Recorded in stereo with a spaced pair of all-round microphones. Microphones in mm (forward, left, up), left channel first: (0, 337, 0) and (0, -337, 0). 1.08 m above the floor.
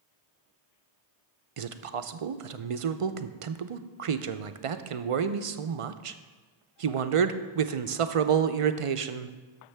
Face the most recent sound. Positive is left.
turn(degrees=-55)  # may be behind; listen again after turning